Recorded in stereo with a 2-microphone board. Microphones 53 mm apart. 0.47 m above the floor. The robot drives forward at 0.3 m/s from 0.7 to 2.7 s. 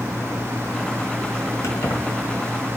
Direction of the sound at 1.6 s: 75° left (ahead or behind).